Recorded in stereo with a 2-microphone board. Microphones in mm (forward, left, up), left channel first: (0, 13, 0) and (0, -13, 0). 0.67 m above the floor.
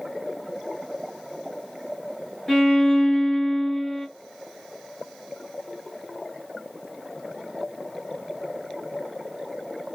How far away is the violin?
About 1.2 m.